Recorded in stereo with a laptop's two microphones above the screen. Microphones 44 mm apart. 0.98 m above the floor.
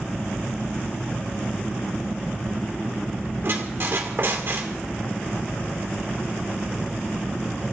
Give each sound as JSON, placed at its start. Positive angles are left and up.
{"t": 3.4, "sound": "a squeak", "side_deg": -55, "distance_m": 2.0}